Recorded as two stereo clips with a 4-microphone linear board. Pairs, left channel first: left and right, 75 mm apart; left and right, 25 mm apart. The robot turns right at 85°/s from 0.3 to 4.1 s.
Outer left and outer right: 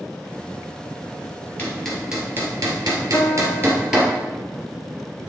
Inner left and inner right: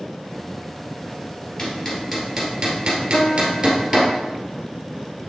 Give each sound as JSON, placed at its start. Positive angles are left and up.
{"t": 1.6, "sound": "hammering", "side_deg": 20, "distance_m": 2.5}
{"t": 3.1, "sound": "a piano", "azimuth_deg": 50, "distance_m": 0.8}